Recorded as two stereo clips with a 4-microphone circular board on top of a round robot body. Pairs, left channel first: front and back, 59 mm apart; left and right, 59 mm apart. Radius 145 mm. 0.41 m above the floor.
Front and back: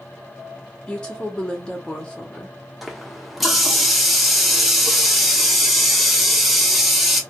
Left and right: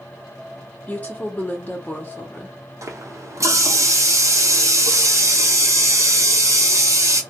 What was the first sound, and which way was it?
A woman speaking, 60° left.